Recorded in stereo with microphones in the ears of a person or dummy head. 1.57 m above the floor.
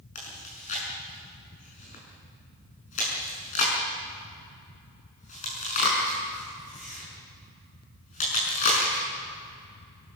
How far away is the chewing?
About 6 m.